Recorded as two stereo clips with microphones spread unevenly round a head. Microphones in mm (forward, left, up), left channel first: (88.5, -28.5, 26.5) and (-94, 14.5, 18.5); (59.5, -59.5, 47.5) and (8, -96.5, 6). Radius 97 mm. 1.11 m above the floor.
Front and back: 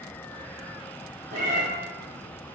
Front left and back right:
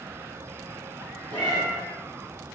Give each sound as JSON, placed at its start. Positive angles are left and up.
{"t": 1.3, "sound": "a cat meowing", "azimuth_deg": -150, "distance_m": 2.0}